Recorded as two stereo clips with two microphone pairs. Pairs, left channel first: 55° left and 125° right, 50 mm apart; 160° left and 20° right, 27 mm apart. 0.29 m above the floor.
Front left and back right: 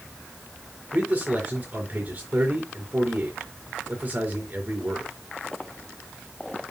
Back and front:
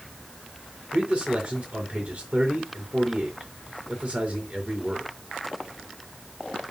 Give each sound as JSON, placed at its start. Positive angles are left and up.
{"t": 0.9, "sound": "a man speaking", "azimuth_deg": -70, "distance_m": 4.0}